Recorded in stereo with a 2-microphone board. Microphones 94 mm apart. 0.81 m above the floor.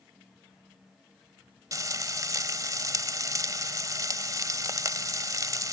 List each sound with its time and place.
1.7 s frying: 35° right (ahead or behind)